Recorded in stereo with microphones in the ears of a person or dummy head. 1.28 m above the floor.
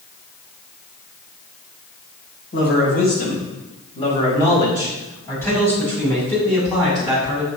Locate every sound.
2.5 s a man speaking: 55° left (ahead or behind), 5.5 m; by 7.5 s 5° right (ahead or behind), 9 m